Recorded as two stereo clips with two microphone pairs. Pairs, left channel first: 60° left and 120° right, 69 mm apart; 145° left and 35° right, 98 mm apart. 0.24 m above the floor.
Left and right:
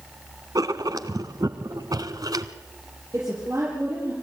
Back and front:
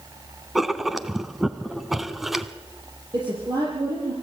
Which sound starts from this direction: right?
A woman speaking, at 3.1 s.